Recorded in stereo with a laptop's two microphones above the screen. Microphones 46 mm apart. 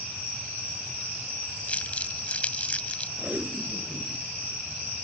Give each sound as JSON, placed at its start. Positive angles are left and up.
{"t": 1.7, "sound": "crumpling", "side_deg": 30}
{"t": 3.2, "sound": "tape being pulled", "side_deg": -35}